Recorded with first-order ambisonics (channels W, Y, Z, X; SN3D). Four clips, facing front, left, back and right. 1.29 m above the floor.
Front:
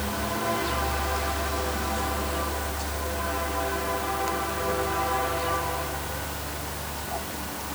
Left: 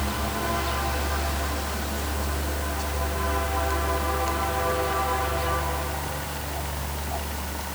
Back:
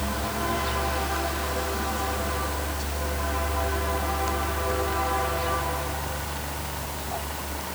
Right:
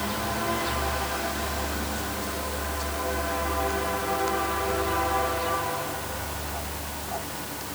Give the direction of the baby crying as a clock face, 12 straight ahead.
I don't hear a baby crying.